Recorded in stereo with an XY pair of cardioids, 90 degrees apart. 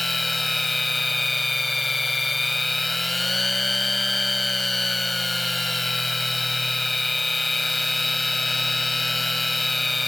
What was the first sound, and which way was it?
A machine running, 15° left.